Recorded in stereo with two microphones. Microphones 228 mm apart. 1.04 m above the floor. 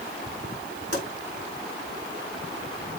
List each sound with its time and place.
0.9 s a pop: 80° left, 5 m